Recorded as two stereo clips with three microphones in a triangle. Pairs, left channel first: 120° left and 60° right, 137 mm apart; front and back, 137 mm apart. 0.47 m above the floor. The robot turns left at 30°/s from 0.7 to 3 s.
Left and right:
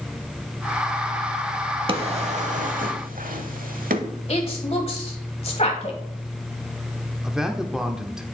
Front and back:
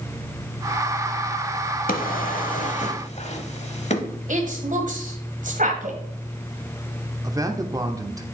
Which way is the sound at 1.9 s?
10° right.